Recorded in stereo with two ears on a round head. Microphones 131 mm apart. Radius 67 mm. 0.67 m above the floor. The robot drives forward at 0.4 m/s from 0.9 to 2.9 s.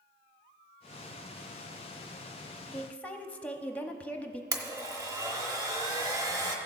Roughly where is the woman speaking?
Centre.